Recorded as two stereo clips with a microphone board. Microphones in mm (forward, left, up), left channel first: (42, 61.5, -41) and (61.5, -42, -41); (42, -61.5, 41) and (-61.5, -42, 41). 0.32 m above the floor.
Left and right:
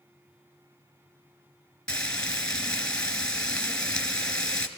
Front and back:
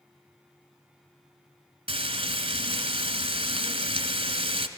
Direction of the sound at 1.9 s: Straight behind.